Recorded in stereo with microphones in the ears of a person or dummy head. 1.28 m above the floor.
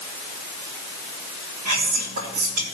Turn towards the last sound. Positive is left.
turn(degrees=-45)  # may be behind; listen again after turning